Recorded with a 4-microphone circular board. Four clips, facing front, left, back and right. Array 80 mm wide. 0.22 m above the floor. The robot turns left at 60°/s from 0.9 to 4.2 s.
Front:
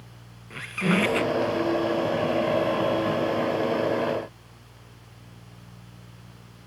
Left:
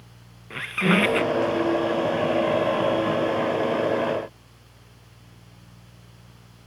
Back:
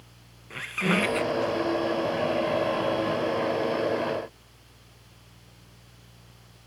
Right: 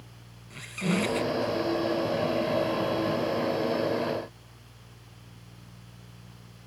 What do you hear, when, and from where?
0.5 s a squeak: 95° left, 0.9 m; by 1.5 s 55° left, 0.9 m